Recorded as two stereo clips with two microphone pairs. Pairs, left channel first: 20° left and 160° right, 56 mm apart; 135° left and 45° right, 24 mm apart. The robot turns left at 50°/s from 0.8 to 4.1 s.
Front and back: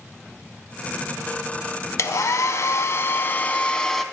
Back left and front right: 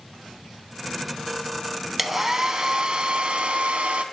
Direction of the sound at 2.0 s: 35° left.